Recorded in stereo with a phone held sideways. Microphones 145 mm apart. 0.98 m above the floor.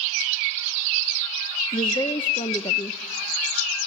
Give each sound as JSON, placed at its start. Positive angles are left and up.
{"t": 1.7, "sound": "a woman speaking", "side_deg": 40, "distance_m": 0.6}